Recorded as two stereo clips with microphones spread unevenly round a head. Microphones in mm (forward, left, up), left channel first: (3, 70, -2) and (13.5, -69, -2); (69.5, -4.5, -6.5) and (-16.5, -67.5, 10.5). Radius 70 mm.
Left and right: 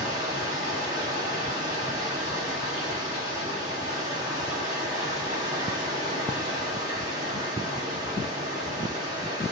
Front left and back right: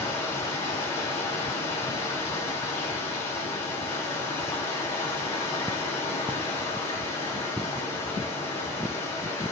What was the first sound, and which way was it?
Running water, 25° right.